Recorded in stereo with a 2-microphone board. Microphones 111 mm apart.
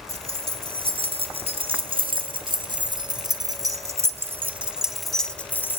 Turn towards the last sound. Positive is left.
turn(degrees=20)  # may be behind; listen again after turning